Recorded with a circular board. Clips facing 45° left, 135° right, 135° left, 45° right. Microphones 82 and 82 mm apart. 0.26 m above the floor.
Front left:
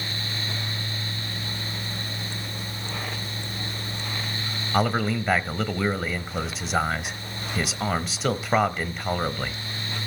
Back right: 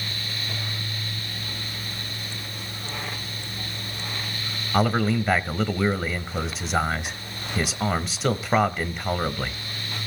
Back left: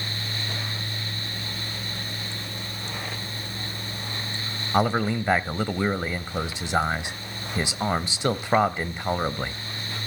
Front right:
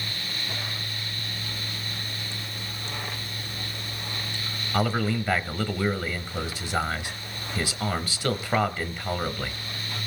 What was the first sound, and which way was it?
A man speaking, 135° left.